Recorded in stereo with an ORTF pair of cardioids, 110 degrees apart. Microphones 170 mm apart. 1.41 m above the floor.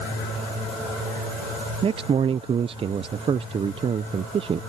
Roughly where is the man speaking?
Ahead right.